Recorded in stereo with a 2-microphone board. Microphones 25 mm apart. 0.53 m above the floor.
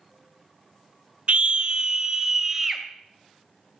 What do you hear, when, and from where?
1.3 s a scream: 55° right (ahead or behind), 1.5 m; by 2.8 s 10° right (ahead or behind), 2.5 m